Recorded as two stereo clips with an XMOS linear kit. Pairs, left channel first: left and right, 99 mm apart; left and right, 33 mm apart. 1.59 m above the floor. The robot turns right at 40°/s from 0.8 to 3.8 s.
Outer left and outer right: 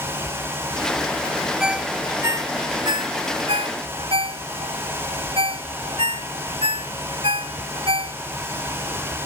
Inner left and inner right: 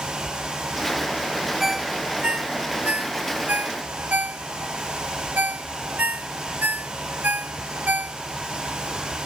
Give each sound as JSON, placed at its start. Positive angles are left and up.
{"t": 1.6, "sound": "a ringtone", "side_deg": -5}